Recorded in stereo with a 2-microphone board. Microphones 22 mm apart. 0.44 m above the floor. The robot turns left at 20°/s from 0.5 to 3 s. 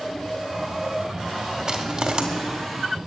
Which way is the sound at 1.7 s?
40° right (ahead or behind).